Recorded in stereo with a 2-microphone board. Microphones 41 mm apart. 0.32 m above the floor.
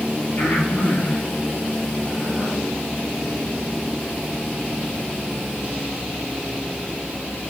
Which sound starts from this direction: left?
Breathing, at 0.4 s.